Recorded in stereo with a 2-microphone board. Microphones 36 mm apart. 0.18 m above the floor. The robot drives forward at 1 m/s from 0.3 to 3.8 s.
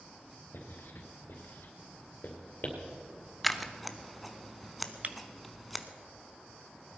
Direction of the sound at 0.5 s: 65° left (ahead or behind).